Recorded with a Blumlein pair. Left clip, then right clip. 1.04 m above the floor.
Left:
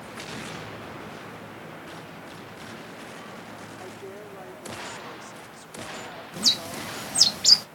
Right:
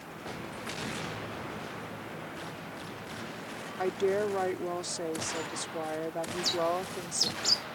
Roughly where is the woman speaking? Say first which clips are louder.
Right 11 dB; ahead right.